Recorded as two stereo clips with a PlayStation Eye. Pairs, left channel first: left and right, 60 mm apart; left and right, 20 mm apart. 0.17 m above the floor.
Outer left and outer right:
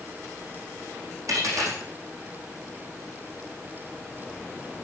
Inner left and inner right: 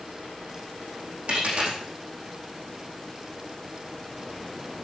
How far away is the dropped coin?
About 4.5 m.